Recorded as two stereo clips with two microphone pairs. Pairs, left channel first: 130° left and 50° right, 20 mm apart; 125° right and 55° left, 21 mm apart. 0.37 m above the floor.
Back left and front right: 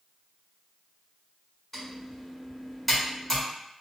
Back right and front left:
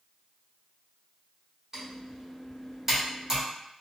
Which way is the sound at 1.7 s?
80° left.